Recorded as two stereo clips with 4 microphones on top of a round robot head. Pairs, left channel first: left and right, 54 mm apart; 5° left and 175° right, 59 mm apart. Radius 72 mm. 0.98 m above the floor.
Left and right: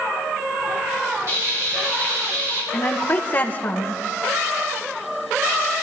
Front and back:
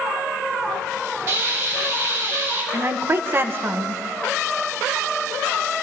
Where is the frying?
125° right, 3 m.